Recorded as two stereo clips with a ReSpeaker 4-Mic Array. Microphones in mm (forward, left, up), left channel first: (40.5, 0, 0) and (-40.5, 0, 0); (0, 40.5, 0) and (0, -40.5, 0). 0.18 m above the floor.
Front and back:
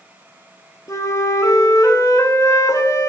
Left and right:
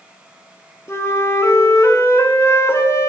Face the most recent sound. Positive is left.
turn(degrees=40)